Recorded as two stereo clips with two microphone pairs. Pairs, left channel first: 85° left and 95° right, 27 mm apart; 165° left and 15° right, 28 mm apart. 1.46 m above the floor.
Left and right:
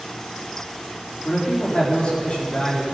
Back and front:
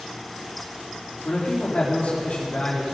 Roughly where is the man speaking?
Behind left.